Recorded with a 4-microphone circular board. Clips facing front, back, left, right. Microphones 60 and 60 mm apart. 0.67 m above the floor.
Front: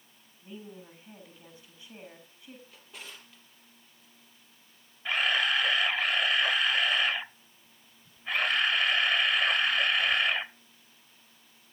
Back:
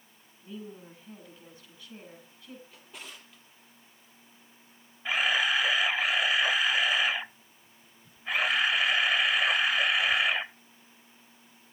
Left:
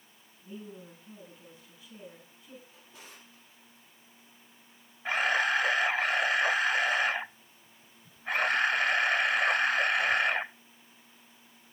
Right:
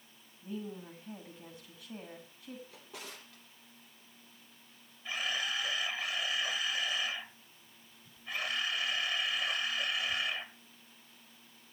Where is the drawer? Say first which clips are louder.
Even, right 4 dB; 90° right, 4 m.